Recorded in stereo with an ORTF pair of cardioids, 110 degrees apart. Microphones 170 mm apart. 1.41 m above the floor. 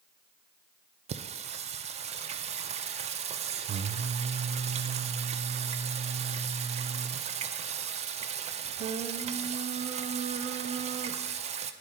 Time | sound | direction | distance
1.1 | singing | 40° right | 0.5 m